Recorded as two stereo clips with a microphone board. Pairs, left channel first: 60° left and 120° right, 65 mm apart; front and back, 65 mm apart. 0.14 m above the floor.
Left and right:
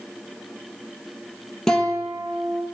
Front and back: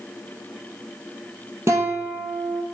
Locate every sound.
1.7 s a guitar: 140° left, 0.8 m